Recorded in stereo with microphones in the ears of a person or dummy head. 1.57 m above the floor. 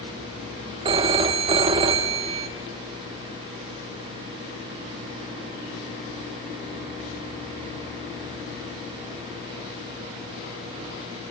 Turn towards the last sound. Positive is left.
turn(degrees=-30)  # may be behind; listen again after turning